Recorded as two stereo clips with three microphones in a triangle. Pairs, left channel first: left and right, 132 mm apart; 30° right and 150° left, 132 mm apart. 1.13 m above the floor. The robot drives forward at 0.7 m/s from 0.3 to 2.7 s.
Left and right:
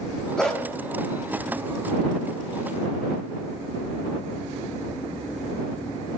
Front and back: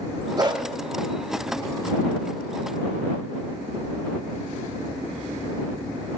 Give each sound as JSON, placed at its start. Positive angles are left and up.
{"t": 0.4, "sound": "a dog barking", "azimuth_deg": 170, "distance_m": 0.7}